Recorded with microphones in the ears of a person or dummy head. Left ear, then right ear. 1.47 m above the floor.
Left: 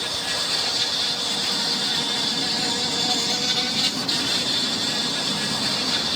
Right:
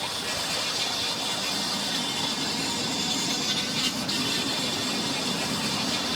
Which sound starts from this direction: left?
An insect, at 0.0 s.